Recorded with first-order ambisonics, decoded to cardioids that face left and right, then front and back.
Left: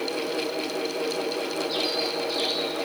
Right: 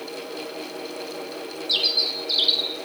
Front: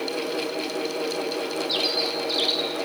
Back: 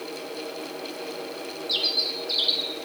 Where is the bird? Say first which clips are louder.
Right 9 dB, back 1 dB; 90° right, 0.7 m.